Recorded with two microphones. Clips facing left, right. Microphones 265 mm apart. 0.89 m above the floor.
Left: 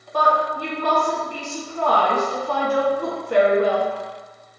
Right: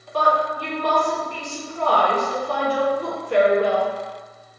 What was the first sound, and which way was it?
A woman speaking, 55° left (ahead or behind).